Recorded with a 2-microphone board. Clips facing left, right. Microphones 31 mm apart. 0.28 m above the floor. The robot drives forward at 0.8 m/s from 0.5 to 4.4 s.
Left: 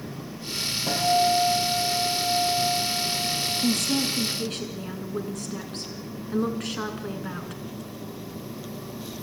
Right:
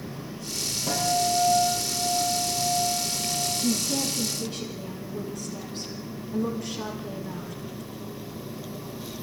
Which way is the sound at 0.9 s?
20° left (ahead or behind).